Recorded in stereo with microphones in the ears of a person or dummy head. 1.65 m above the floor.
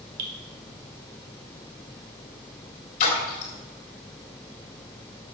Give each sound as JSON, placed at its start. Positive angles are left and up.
{"t": 0.2, "sound": "dripping", "side_deg": -55, "distance_m": 1.8}
{"t": 3.0, "sound": "a splash", "side_deg": 45, "distance_m": 3.0}